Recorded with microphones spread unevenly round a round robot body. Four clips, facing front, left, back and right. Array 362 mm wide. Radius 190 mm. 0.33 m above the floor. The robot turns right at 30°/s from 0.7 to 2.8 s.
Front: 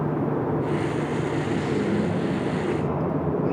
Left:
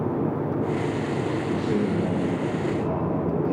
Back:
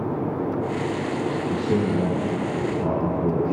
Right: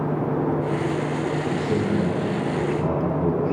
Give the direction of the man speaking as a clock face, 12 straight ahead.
6 o'clock.